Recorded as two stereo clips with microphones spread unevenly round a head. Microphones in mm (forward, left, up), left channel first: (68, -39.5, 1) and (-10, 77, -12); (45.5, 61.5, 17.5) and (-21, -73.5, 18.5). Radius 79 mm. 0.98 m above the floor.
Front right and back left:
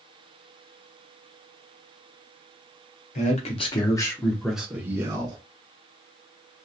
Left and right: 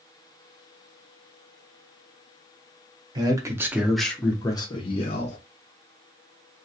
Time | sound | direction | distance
3.1 | a man speaking | 65° right | 0.9 m